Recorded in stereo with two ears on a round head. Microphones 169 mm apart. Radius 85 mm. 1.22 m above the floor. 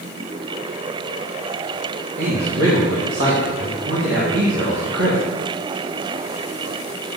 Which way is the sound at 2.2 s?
60° right (ahead or behind).